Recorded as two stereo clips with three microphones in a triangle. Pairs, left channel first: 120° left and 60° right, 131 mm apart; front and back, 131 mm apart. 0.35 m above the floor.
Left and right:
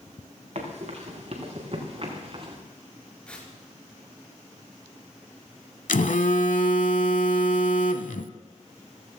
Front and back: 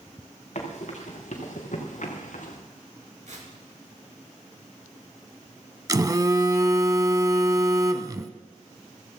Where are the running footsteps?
25° right, 5 m; by 2.6 s 15° right, 3.5 m.